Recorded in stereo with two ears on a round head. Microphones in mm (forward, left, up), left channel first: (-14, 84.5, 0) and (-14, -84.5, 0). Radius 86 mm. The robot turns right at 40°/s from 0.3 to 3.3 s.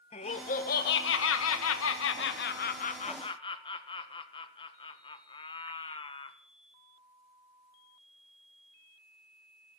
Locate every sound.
0.1 s laughter: 35° left, 1.6 m; by 6.4 s 155° left, 1.6 m